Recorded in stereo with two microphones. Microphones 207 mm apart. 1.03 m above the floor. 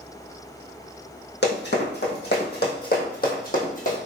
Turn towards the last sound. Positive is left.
turn(degrees=45)  # may be behind; listen again after turning